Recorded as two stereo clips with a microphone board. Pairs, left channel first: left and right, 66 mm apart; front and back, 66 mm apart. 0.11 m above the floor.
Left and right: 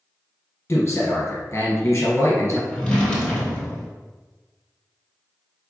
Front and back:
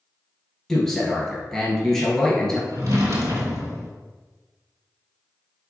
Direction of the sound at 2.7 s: 160° left.